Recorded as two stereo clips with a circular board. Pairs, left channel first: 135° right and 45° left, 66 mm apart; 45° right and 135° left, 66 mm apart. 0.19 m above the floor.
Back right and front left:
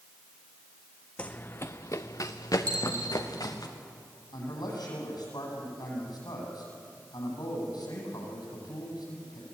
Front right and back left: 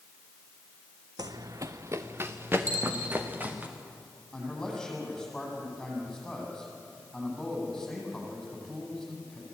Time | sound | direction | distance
1.2 | running footsteps | 155° left | 0.9 m
2.7 | a dropped coin | 75° left | 3.5 m
4.3 | a man speaking | 130° right | 9 m